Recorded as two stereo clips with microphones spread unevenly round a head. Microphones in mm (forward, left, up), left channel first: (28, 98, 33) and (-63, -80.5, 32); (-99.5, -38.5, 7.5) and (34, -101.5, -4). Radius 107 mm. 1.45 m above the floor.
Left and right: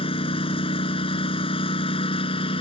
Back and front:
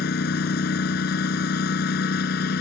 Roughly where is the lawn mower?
Behind left.